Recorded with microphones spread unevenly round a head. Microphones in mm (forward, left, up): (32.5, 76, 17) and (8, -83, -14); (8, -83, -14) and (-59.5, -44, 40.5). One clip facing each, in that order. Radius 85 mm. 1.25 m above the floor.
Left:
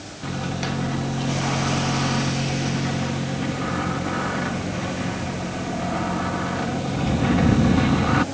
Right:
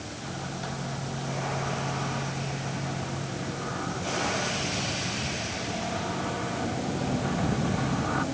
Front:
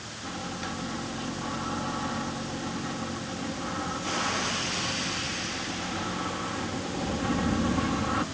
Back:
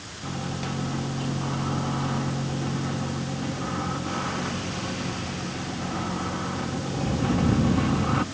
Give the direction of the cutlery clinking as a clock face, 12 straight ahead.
No cutlery clinking in this recording.